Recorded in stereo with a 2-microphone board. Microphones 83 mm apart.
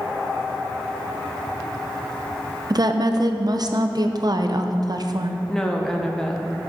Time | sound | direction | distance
2.7 | a woman speaking | 50° right (ahead or behind) | 0.7 m
5.5 | a woman speaking | 5° left (ahead or behind) | 1.1 m